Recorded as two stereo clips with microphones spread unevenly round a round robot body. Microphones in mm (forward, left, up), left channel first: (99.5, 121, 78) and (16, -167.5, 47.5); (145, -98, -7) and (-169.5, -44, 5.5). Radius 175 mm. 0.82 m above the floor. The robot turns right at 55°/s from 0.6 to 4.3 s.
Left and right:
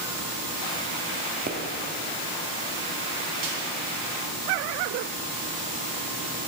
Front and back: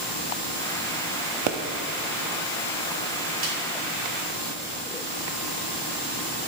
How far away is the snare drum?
About 3 m.